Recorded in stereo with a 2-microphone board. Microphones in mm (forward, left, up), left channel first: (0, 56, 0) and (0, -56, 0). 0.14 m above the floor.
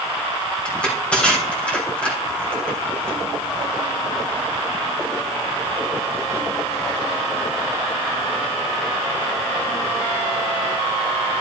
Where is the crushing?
10° left (ahead or behind), 4 m.